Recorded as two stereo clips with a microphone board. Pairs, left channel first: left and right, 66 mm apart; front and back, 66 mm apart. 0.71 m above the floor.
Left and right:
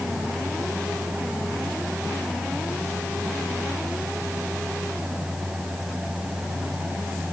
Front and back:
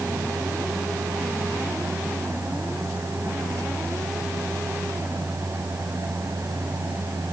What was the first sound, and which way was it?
Only background noise.